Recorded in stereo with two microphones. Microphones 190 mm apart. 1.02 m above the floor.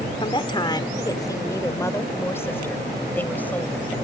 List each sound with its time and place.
0.2 s a woman speaking: 25° left (ahead or behind); by 4.0 s 5° left (ahead or behind)